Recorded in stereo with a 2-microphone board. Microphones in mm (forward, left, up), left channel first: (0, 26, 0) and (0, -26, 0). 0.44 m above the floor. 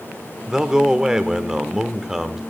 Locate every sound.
0.5 s a man speaking: 10° right (ahead or behind), 1.0 m